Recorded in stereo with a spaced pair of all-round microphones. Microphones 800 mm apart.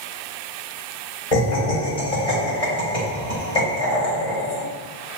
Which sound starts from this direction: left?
Laughter, at 1.3 s.